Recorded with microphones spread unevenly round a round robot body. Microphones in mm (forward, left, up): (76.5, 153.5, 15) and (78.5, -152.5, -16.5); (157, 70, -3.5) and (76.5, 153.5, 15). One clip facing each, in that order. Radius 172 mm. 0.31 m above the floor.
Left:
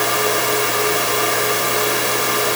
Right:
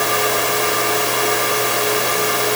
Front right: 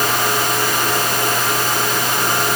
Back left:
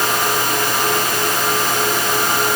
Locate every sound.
Only background noise.